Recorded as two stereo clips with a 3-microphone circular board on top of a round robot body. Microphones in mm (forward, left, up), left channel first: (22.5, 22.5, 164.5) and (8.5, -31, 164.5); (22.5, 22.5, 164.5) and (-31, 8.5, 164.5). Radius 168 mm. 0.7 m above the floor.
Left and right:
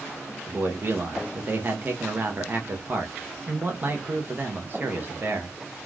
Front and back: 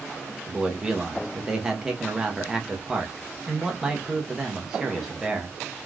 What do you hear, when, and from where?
0.5 s a man speaking: 90° right, 0.9 m